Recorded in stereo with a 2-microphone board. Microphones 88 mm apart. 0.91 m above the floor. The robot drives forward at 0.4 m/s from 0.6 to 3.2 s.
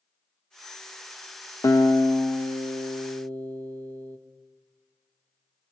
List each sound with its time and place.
1.6 s a guitar: 35° left (ahead or behind), 1.0 m; by 4.2 s 20° left (ahead or behind), 1.5 m